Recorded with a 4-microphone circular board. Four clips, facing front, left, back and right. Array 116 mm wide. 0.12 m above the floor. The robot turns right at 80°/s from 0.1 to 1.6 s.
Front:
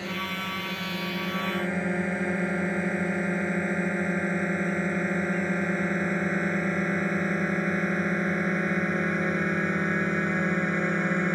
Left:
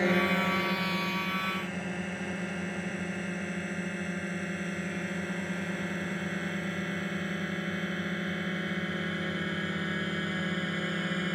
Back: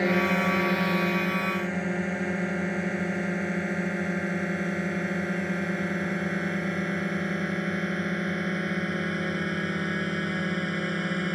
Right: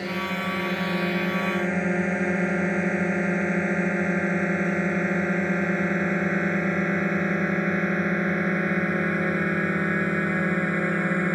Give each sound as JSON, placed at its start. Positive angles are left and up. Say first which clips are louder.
{"t": 0.0, "sound": "a drone", "louder": "left 2 dB, back 9 dB", "azimuth_deg": 155}